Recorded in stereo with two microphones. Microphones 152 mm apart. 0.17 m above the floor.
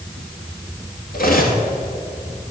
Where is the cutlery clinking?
70° left (ahead or behind), 1.8 m.